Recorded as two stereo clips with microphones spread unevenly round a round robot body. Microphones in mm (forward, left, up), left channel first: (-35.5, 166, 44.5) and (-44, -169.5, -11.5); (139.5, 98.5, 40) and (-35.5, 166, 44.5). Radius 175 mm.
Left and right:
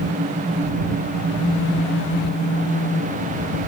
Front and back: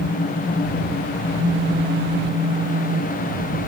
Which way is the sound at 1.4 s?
160° left.